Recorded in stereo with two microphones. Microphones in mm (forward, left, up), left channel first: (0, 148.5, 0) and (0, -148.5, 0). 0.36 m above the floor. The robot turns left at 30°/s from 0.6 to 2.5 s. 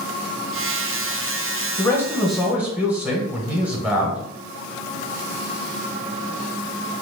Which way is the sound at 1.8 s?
10° left (ahead or behind).